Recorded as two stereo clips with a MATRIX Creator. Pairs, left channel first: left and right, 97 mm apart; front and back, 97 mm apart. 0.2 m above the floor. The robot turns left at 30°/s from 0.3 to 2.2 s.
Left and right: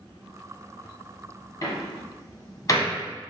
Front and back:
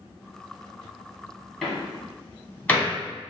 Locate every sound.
1.6 s a door slam: 85° left, 1.3 m; by 3.0 s 70° left, 1.3 m